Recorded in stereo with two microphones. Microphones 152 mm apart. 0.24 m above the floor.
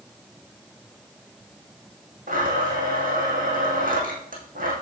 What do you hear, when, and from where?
2.3 s a blender: 75° right (ahead or behind), 4 m